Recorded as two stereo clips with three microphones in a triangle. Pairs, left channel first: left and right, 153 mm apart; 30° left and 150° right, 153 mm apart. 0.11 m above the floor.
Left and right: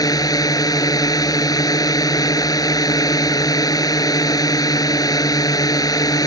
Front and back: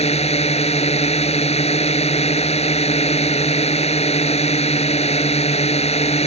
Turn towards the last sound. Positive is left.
turn(degrees=35)